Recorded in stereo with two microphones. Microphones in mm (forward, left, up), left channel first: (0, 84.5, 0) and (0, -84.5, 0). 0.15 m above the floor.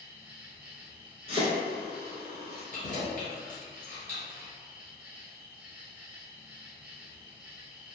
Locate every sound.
0.0 s an insect: 5° right (ahead or behind), 1.2 m
1.3 s chopping: 45° left (ahead or behind), 1.1 m
2.7 s keys jangling: 50° left (ahead or behind), 1.6 m